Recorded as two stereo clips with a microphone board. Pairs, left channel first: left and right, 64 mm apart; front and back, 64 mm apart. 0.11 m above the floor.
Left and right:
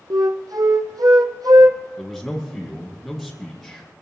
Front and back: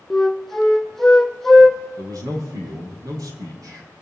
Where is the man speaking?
175° left, 4 m.